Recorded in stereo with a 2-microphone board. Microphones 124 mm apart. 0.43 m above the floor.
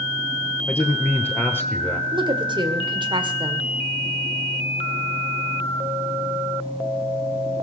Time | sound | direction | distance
0.7 | a man speaking | 15° left (ahead or behind) | 1.3 m
2.1 | a woman speaking | 40° right (ahead or behind) | 1.7 m